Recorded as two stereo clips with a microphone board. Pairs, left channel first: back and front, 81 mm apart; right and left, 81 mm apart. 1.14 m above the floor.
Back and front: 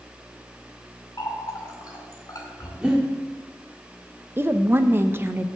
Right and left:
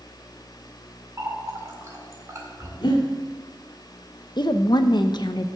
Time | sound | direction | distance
1.2 | a running tap | 140° left | 1.9 m
2.8 | breathing | 80° right | 1.6 m
4.4 | a woman speaking | 60° right | 0.7 m